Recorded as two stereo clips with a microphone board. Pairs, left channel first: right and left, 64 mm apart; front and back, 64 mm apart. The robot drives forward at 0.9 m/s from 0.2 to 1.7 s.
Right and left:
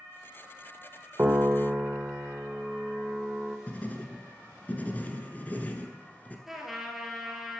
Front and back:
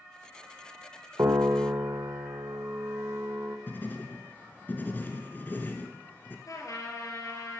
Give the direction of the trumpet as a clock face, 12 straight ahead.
12 o'clock.